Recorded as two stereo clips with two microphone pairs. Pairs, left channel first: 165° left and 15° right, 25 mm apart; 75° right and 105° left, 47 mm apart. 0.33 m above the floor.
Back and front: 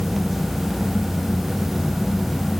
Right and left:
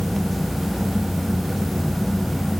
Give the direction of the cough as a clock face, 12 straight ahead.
I don't hear a cough.